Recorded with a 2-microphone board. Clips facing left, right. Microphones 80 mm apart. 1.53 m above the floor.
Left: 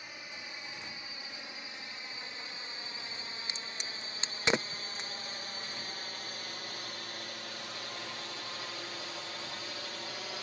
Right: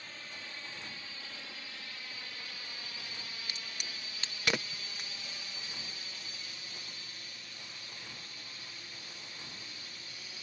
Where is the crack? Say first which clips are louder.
Left 2 dB; 25° left (ahead or behind).